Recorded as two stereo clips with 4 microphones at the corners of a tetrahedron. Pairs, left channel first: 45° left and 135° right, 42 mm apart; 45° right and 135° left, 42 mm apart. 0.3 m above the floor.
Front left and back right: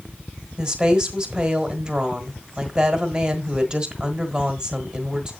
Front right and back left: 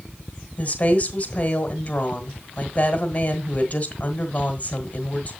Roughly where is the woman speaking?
Right.